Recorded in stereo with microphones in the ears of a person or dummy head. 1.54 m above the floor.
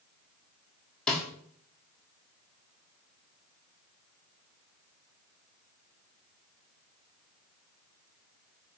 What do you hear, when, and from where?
1.1 s a snare drum: 5° left (ahead or behind), 0.6 m